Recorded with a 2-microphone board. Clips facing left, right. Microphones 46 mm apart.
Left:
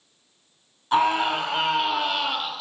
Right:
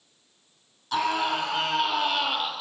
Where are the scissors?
I don't hear scissors.